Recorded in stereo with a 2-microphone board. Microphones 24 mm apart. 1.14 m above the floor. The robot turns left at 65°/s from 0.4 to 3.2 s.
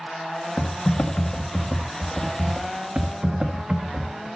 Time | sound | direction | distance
0.6 | typing on a keyboard | 125° left | 1.5 m